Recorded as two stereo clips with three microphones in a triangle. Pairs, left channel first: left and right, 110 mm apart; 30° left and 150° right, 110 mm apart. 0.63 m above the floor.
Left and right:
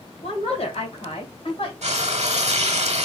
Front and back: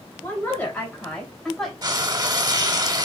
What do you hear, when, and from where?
0.2 s a woman speaking: 100° left, 3 m; by 1.7 s 120° left, 2.5 m
1.8 s frying: 95° right, 1.0 m